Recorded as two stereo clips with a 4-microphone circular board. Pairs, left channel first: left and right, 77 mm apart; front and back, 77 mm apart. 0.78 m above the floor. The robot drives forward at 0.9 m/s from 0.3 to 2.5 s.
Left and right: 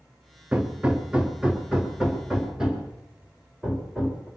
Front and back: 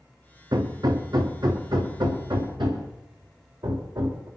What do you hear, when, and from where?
0.5 s hammering: 160° right, 1.5 m; by 4.3 s 170° right, 3 m